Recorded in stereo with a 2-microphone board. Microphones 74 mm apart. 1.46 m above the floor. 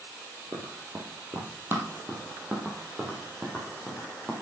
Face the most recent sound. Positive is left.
turn(degrees=-5)  # may be behind; listen again after turning